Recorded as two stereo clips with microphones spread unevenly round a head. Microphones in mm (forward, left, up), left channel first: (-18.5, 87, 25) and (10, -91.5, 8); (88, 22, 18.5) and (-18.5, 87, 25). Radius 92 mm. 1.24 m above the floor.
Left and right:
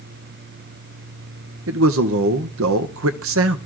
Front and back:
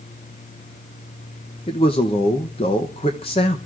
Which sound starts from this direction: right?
A man speaking, at 1.7 s.